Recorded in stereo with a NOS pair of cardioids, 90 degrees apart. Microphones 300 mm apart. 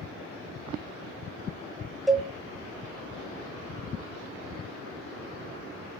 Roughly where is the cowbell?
Ahead.